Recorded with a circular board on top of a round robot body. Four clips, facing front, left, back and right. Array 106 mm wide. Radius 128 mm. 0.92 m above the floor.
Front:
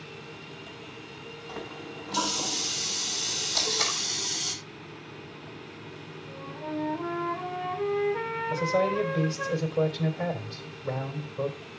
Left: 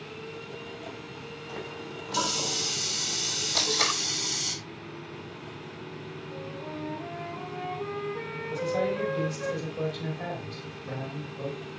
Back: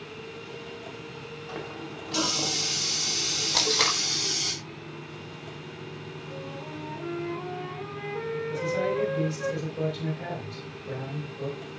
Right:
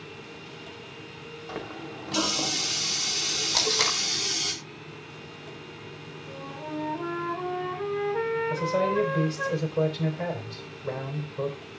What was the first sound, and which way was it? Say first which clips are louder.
A running tap: right 3 dB, back 2 dB; 115° right.